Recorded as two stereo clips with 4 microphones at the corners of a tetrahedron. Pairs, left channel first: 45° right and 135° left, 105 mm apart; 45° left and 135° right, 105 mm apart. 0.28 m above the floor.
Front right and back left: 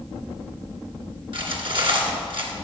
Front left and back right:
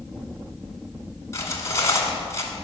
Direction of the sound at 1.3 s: 105° left.